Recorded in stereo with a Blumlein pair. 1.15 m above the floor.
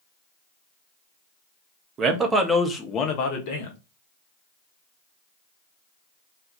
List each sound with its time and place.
2.0 s a man speaking: 25° right, 0.7 m; by 3.8 s 50° left, 0.9 m